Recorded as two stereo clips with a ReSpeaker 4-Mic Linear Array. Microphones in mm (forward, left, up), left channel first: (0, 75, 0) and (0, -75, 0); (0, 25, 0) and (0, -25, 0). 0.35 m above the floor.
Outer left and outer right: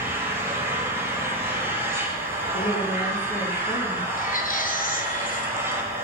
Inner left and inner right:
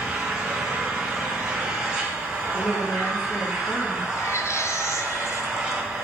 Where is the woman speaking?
65° left (ahead or behind), 7.5 m.